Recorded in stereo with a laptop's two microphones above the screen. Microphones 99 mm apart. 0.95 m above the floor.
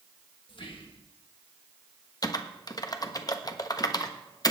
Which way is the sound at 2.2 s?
40° left (ahead or behind).